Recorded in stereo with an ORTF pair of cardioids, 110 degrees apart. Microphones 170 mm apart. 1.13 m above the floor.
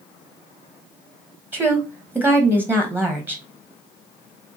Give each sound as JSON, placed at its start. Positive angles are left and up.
{"t": 1.5, "sound": "a woman speaking", "azimuth_deg": -10, "distance_m": 0.7}